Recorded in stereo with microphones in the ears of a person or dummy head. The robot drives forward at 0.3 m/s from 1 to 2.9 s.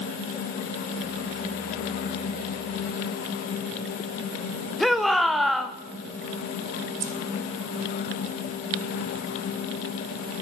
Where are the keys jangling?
50° right (ahead or behind), 1.1 m.